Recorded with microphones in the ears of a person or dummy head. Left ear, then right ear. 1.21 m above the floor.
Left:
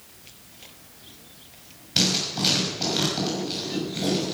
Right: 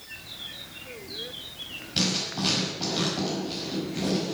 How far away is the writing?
About 6 m.